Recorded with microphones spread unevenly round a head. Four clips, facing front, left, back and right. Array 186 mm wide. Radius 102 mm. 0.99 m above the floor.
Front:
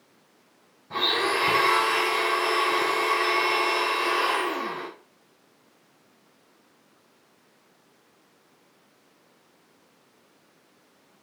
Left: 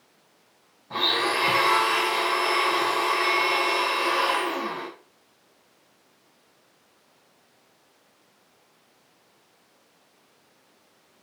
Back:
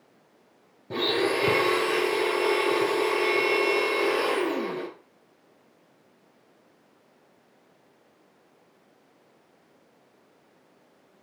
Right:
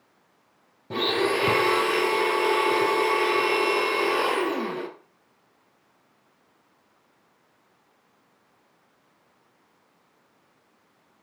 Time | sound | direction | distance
0.9 | a blender | 135° right | 1.0 m